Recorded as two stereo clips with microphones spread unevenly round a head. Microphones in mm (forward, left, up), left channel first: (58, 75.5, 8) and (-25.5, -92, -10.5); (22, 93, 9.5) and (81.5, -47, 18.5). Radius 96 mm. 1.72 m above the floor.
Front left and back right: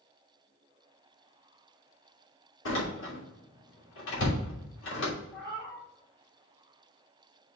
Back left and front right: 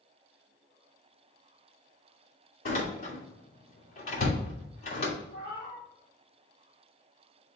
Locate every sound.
2.6 s a door slam: 90° left, 3 m
5.3 s a cat meowing: 150° left, 3 m